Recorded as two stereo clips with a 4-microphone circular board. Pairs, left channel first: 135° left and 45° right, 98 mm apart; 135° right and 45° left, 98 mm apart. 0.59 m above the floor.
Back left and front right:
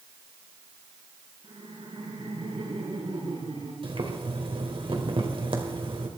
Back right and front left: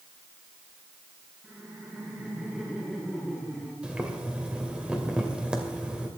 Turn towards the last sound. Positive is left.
turn(degrees=-35)